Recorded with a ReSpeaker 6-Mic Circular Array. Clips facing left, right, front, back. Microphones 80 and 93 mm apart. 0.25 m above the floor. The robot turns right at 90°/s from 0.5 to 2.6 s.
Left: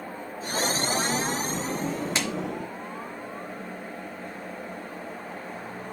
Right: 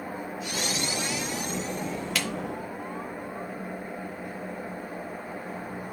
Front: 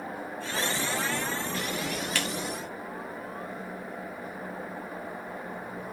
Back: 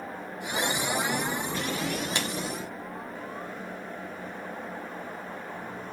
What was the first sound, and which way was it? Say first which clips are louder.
A clap: right 1 dB, even; 125° left.